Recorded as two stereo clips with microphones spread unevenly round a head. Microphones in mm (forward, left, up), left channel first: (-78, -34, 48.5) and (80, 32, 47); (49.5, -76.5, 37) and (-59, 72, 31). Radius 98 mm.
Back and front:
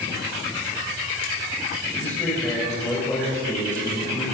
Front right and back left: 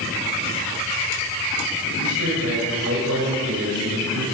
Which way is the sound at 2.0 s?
125° left.